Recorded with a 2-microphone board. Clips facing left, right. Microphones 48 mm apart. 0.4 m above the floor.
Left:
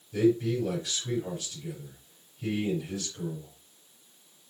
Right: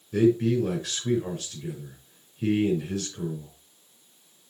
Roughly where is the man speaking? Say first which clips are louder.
Right 3 dB; right.